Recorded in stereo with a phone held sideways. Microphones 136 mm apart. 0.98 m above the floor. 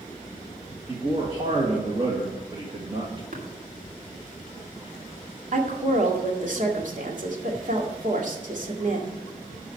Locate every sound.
0.9 s a man speaking: 35° right (ahead or behind), 1.7 m
3.3 s tapping: 70° right (ahead or behind), 3 m
5.5 s a woman speaking: 65° right (ahead or behind), 2.0 m